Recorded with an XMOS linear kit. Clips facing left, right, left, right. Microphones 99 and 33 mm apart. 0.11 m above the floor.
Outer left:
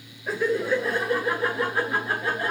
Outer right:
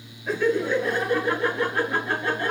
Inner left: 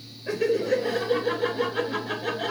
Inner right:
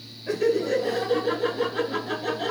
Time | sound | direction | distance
0.3 | laughter | 5° left (ahead or behind) | 1.2 m